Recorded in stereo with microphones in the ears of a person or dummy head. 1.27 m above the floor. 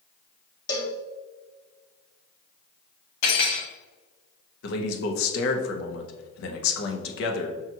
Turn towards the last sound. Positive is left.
turn(degrees=75)  # may be behind; listen again after turning